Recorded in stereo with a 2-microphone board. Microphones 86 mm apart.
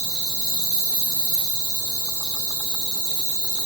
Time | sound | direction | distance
0.0 | an insect | 50° right (ahead or behind) | 1.0 m